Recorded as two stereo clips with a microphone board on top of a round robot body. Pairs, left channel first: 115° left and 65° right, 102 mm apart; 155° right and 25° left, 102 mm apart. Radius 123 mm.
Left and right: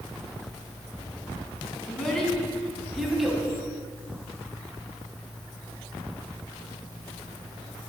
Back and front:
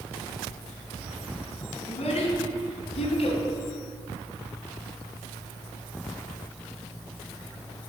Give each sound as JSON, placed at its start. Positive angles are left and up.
{"t": 1.9, "sound": "a child speaking", "azimuth_deg": -165, "distance_m": 3.5}